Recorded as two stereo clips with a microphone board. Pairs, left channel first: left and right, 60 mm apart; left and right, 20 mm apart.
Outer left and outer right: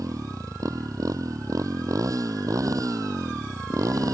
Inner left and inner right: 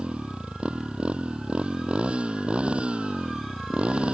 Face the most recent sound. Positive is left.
turn(degrees=-75)  # may be behind; listen again after turning